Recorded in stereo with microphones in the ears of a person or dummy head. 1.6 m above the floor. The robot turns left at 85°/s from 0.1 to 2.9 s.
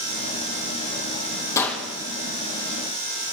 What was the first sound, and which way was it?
A gunshot, 15° left.